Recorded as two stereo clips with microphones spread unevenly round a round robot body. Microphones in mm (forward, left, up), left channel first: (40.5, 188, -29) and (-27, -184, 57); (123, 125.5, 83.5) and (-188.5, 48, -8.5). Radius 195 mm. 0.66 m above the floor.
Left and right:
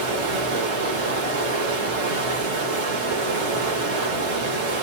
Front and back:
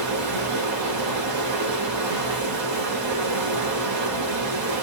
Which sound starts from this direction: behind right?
Running water, at 0.0 s.